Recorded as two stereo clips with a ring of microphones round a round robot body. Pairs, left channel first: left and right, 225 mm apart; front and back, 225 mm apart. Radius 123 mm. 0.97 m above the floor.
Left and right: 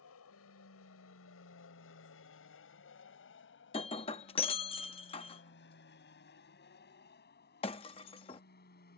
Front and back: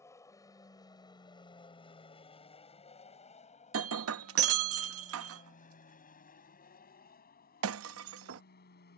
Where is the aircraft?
75° left; by 9.0 s 45° left.